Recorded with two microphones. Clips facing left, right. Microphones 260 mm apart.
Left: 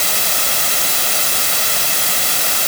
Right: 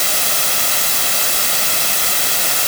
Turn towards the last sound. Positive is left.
No sound to turn to.